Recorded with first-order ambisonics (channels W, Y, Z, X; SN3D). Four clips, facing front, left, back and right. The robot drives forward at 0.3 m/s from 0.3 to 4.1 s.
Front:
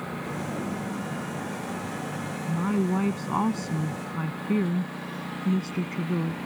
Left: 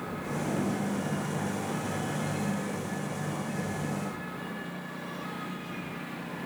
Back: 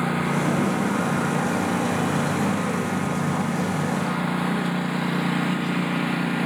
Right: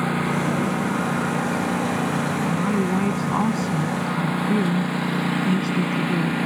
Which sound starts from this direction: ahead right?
A woman speaking, at 2.5 s.